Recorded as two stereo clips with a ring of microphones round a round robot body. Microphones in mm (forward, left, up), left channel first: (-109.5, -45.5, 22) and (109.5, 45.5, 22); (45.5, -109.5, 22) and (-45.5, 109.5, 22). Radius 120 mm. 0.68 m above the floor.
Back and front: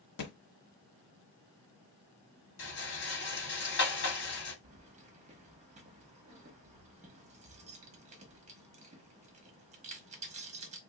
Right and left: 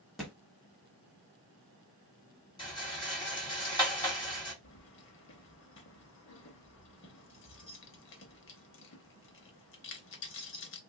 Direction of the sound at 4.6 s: 35° right.